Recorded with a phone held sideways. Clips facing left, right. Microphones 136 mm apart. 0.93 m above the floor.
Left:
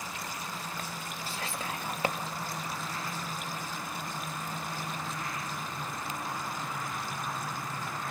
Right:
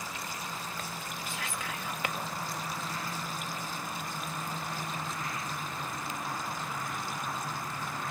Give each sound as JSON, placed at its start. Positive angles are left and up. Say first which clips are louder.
{"t": 1.3, "sound": "whispering", "louder": "left 3 dB", "side_deg": 35, "distance_m": 1.7}